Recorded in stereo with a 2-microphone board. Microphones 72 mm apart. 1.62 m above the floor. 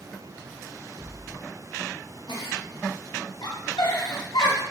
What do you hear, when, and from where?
2.3 s a giggle: 75° left (ahead or behind), 0.6 m